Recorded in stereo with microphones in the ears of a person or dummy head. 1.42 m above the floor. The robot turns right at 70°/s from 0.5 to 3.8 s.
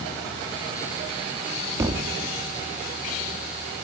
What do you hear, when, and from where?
1.8 s a thud: 15° right (ahead or behind), 1.1 m; by 2.2 s 35° right (ahead or behind), 1.1 m